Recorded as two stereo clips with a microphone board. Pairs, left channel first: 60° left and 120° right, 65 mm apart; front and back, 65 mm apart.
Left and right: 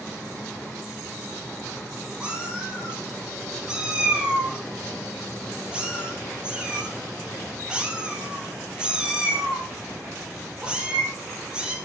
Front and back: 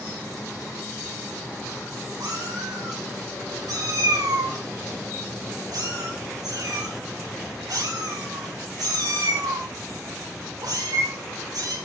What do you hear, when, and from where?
2.2 s a cat meowing: 165° left, 4 m